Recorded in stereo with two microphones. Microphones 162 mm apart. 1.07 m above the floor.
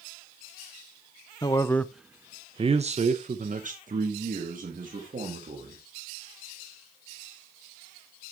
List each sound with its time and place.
1.4 s a man speaking: 25° left (ahead or behind), 0.6 m; by 5.8 s 55° right (ahead or behind), 2 m